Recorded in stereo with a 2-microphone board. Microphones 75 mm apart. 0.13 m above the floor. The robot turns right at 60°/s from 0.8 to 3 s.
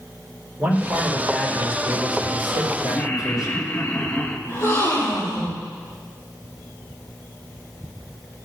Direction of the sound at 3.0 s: 30° left (ahead or behind).